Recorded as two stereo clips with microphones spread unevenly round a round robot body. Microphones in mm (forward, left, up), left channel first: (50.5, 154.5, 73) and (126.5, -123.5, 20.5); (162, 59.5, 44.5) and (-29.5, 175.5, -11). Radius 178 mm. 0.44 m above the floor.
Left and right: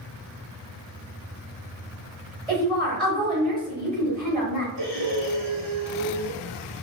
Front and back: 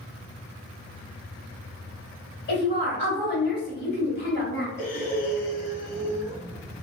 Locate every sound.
2.5 s a woman speaking: 10° left, 1.7 m
4.8 s breathing: 95° right, 0.9 m